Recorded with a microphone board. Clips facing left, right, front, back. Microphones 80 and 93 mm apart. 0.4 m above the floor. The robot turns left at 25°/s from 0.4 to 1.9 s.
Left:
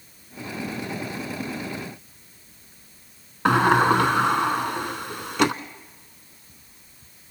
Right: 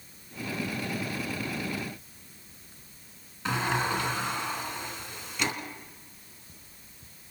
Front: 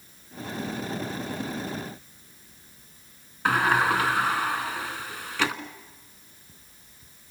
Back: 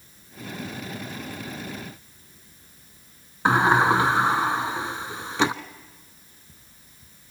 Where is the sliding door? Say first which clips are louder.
Left 11 dB, back 4 dB; 115° left, 0.9 m.